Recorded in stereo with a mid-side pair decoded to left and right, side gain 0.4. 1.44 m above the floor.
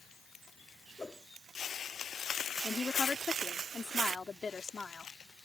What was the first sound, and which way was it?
A whoosh, 25° left.